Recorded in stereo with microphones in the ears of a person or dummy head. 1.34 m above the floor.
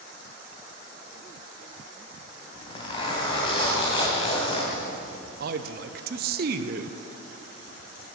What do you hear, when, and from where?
2.5 s a zipper: 35° left (ahead or behind), 3 m
5.4 s a man speaking: 60° right (ahead or behind), 0.8 m